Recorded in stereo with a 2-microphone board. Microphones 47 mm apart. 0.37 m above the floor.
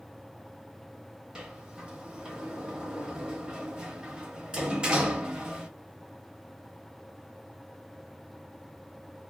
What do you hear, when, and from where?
1.4 s a sliding door: 20° right (ahead or behind), 0.8 m